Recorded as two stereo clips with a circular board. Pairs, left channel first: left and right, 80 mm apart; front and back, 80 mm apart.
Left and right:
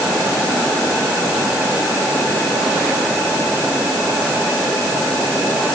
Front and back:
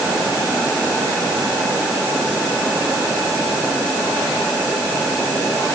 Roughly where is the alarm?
I don't hear an alarm.